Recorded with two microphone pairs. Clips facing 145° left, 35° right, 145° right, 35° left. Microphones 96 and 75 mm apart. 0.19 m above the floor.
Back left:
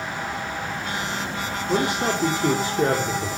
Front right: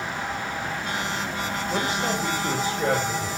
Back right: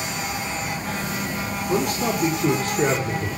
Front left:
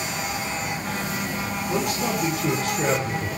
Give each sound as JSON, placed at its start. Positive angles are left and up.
{"t": 1.7, "sound": "a man speaking", "azimuth_deg": 165, "distance_m": 6.5}